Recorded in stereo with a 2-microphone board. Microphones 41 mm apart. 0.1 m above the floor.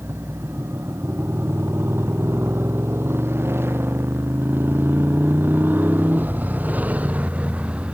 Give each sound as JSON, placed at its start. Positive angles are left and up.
{"t": 0.0, "sound": "a motorcycle", "side_deg": -80}